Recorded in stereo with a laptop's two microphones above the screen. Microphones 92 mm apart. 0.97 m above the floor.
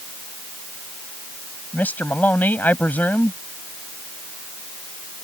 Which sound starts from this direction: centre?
A man speaking, at 1.7 s.